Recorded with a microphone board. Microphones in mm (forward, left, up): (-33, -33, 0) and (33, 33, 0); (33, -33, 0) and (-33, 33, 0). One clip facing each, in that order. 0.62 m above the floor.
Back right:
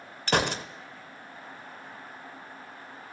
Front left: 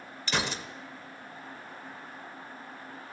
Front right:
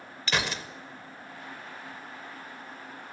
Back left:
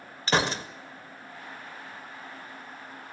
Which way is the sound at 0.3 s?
170° right.